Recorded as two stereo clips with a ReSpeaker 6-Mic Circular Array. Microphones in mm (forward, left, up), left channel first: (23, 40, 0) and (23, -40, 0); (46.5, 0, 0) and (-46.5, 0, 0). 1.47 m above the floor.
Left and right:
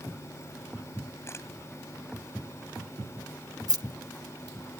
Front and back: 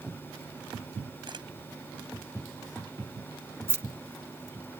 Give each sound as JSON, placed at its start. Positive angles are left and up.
{"t": 1.3, "sound": "a camera shutter", "azimuth_deg": 145}
{"t": 3.7, "sound": "keys jangling", "azimuth_deg": -120}